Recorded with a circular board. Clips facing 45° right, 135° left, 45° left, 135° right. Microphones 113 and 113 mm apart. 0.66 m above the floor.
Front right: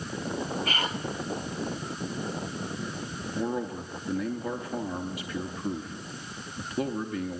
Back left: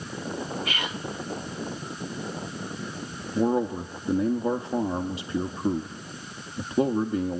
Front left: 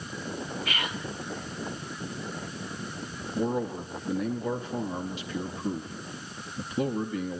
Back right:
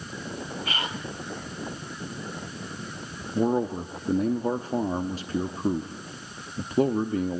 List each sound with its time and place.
0.7 s whispering: 85° right, 0.9 m
3.4 s a man speaking: 170° right, 0.7 m